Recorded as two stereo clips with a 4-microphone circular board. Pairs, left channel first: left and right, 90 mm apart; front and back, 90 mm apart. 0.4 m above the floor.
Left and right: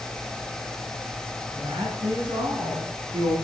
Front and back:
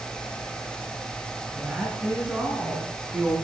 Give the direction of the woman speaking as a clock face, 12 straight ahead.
3 o'clock.